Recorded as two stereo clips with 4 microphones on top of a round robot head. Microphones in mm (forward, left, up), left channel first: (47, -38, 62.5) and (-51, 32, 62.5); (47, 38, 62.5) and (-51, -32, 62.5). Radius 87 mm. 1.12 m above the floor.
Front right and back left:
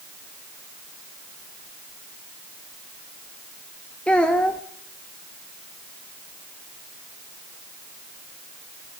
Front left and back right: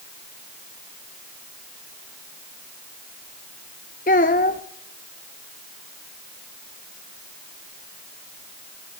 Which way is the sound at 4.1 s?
45° left.